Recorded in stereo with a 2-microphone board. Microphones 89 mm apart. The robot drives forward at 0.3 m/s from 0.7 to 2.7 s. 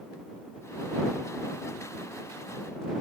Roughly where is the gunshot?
I don't hear a gunshot.